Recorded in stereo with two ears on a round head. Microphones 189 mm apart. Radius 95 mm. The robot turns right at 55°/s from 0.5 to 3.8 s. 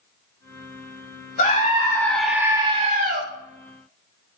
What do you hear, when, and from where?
1.4 s a scream: 135° left, 4 m; by 3.2 s 125° right, 4 m